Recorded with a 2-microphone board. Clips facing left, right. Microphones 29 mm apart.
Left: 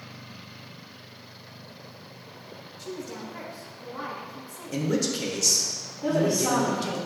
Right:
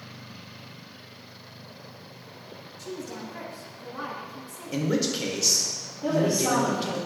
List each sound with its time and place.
2.8 s a woman speaking: 20° left (ahead or behind), 1.2 m
4.7 s a man speaking: 15° right (ahead or behind), 0.8 m
6.0 s a woman speaking: 25° left (ahead or behind), 1.4 m